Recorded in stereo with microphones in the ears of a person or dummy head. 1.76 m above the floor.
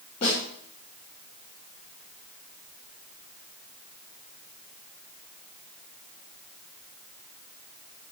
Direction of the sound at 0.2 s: 40° left (ahead or behind).